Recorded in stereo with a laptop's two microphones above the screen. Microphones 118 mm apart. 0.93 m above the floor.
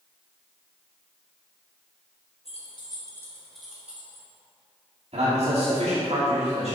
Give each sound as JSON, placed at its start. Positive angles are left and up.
{"t": 2.5, "sound": "keys jangling", "side_deg": 60, "distance_m": 1.0}
{"t": 5.1, "sound": "a man speaking", "side_deg": -65, "distance_m": 2.0}